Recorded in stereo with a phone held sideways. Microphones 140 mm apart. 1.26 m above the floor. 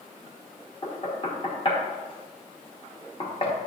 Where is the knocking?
40° left (ahead or behind), 1.1 m.